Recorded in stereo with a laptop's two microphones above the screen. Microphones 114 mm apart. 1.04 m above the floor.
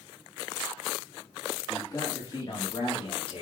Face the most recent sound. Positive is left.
turn(degrees=55)  # may be behind; listen again after turning